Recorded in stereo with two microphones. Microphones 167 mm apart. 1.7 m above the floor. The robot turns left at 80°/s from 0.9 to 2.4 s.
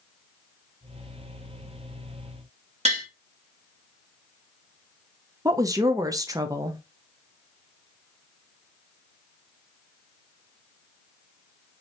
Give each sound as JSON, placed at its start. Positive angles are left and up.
{"t": 2.9, "sound": "tapping", "side_deg": -40, "distance_m": 1.0}
{"t": 5.5, "sound": "a woman speaking", "side_deg": -20, "distance_m": 0.5}